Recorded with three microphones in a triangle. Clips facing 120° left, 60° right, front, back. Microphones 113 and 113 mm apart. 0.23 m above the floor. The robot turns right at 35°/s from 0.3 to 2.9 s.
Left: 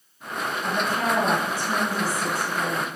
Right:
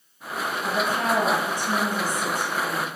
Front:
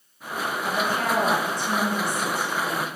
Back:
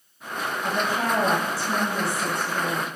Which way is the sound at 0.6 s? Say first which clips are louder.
Right 1 dB, even; 140° right.